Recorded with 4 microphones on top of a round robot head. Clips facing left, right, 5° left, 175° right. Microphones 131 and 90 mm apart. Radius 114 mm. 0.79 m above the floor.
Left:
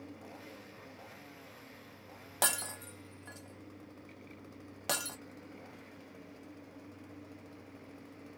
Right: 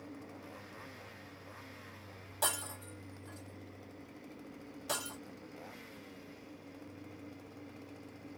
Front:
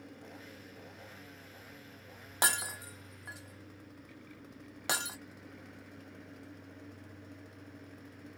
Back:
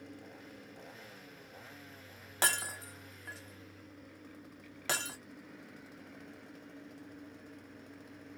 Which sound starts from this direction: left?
Breaking glass, at 2.4 s.